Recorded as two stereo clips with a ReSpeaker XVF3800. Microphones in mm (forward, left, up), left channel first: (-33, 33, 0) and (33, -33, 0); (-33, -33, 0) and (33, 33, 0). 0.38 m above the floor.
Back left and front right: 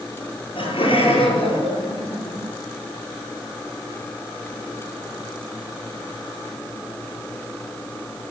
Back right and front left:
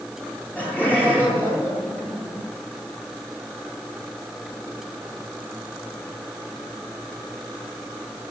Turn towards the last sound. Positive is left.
turn(degrees=150)